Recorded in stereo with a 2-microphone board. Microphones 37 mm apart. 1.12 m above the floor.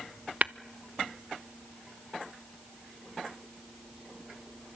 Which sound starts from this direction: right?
Tapping, at 0.4 s.